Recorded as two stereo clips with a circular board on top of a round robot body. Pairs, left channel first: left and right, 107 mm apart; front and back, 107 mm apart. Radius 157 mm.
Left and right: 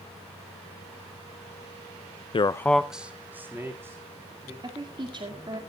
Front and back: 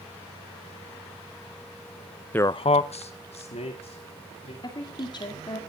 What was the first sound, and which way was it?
A man speaking, 75° left.